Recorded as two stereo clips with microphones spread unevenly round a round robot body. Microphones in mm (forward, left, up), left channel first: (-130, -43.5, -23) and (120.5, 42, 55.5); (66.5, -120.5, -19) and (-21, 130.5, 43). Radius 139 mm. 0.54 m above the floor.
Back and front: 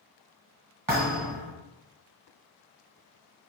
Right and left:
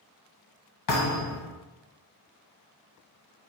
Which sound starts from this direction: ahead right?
A thud, at 0.9 s.